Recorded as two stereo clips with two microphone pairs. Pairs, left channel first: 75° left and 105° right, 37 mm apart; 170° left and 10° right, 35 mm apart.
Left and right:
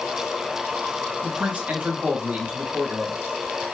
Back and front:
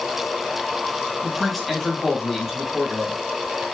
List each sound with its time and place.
1.2 s a man speaking: 100° right, 1.2 m